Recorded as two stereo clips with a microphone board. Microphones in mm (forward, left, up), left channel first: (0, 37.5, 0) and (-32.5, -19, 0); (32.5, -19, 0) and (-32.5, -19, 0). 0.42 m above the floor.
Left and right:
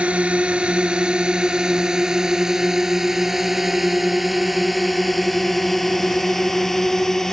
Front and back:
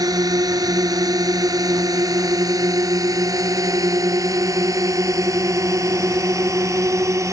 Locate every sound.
0.0 s a drone: 170° left; by 7.3 s 145° left